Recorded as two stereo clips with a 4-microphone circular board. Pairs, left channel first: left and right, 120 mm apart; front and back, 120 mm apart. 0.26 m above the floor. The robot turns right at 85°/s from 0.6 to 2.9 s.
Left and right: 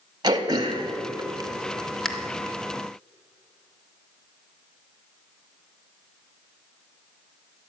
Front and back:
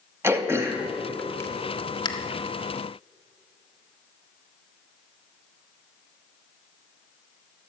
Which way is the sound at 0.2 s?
120° right.